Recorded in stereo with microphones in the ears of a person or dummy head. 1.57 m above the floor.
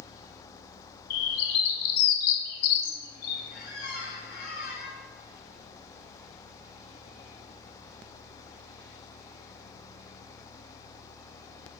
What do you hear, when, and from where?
1.1 s a bird: 60° left (ahead or behind), 0.6 m
3.5 s a squeak: 55° left (ahead or behind), 1.3 m